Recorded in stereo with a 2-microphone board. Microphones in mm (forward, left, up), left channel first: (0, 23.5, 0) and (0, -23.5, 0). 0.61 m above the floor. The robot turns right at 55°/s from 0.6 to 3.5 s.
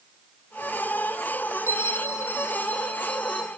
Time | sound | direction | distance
1.7 | a bell | 85° left | 2 m